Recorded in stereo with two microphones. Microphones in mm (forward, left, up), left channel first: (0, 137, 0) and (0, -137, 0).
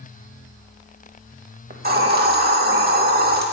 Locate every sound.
1.7 s a hiss: 35° right (ahead or behind), 0.9 m